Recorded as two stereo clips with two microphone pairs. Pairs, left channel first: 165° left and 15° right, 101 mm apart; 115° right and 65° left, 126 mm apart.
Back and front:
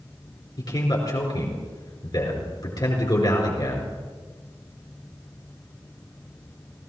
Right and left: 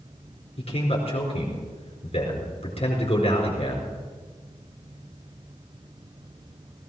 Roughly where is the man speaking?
Behind right.